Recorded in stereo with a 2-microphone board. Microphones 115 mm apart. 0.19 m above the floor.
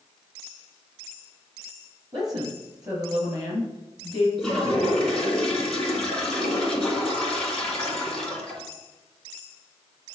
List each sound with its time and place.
2.1 s a woman speaking: 35° right (ahead or behind), 4 m
4.4 s a toilet flushing: 5° left (ahead or behind), 2.5 m